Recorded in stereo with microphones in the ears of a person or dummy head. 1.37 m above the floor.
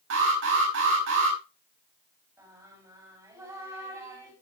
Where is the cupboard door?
No cupboard door in this recording.